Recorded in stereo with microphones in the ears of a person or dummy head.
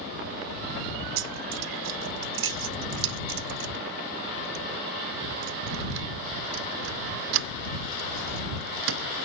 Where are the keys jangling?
75° right (ahead or behind).